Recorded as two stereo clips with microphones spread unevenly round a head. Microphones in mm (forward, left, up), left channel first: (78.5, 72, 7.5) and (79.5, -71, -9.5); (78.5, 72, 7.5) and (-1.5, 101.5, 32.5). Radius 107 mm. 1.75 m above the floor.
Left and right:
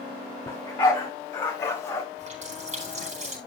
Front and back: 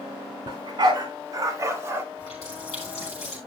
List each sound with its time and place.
0.5 s a dog barking: 170° left, 2 m; by 2.0 s 145° left, 1.3 m
2.2 s a running tap: 55° right, 4 m